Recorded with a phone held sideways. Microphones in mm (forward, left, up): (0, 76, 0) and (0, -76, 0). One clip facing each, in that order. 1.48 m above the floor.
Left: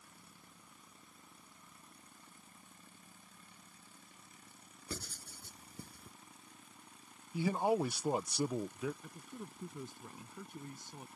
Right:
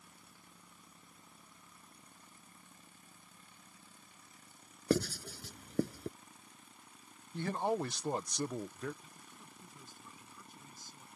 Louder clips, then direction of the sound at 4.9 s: Right 16 dB; 80° right.